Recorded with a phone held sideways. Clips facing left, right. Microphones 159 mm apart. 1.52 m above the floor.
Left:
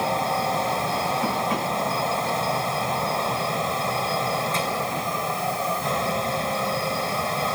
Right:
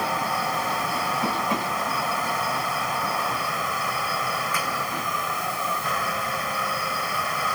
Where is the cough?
No cough in this recording.